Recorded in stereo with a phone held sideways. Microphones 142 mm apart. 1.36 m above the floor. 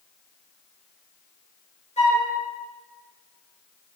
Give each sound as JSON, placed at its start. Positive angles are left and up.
{"t": 2.0, "sound": "a flute", "side_deg": 50, "distance_m": 6.0}